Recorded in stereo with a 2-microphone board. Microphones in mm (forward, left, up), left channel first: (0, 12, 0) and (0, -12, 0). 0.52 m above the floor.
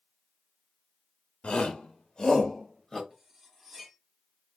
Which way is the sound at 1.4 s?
55° left (ahead or behind).